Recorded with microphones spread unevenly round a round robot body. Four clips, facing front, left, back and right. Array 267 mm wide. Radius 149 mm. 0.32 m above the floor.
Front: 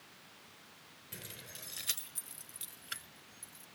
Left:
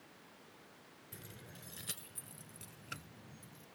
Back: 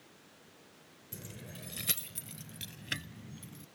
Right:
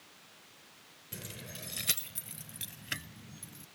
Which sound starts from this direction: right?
Keys jangling, at 1.1 s.